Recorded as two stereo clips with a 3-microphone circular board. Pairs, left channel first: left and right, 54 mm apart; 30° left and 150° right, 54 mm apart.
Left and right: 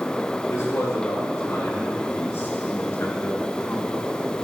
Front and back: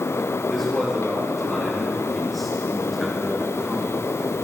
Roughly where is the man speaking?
Behind left.